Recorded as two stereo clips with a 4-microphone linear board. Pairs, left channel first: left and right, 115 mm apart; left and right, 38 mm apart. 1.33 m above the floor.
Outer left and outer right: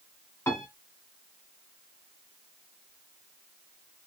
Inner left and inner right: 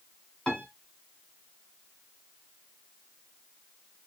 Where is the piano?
20° left (ahead or behind), 1.9 m.